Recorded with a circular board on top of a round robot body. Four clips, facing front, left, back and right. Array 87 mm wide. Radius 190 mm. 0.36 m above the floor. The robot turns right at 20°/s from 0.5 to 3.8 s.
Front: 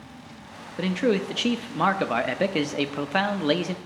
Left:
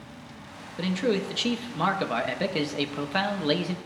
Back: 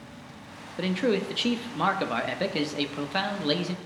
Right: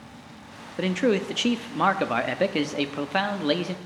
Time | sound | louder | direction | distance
0.8 | a man speaking | right 3 dB, front 2 dB | 75° right | 0.9 m